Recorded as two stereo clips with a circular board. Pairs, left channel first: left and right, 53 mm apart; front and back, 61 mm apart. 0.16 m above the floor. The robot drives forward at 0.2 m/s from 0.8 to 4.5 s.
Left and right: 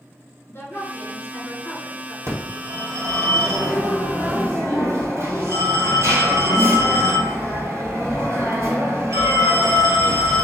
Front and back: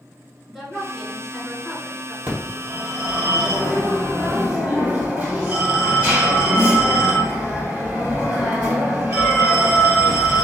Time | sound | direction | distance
0.5 | a woman speaking | 100° left | 2.0 m
2.3 | a phone ringing | 115° right | 2.5 m